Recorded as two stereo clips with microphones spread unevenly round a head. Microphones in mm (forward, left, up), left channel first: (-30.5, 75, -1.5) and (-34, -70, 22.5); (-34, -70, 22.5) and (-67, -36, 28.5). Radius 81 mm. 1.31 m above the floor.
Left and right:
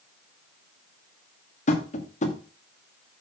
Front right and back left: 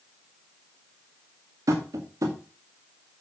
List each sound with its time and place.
1.7 s tapping: 130° left, 2.5 m